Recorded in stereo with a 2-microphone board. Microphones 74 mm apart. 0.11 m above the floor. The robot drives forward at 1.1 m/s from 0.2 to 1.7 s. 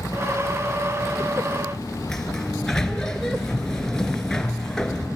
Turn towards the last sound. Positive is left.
turn(degrees=5)  # may be behind; listen again after turning